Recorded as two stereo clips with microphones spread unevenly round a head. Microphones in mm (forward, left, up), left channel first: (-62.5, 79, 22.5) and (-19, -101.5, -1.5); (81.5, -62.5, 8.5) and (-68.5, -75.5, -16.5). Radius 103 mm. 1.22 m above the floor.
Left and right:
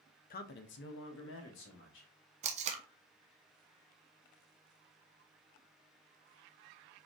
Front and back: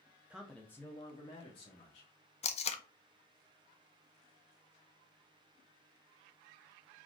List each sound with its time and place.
0.3 s a man speaking: 120° left, 0.6 m; by 2.1 s 70° left, 1.7 m
2.4 s tape being pulled: 40° right, 0.6 m